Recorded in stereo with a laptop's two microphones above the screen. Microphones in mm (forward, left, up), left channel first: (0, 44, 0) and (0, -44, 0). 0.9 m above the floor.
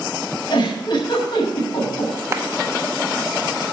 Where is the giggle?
60° left (ahead or behind), 6 m.